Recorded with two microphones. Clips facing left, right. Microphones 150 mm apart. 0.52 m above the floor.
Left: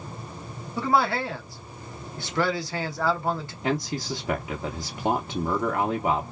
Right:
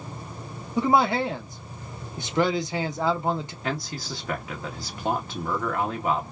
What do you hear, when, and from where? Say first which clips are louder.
0.8 s a man speaking: right 3 dB; 20° right (ahead or behind), 0.7 m
3.6 s a man speaking: left 7 dB; 20° left (ahead or behind), 0.7 m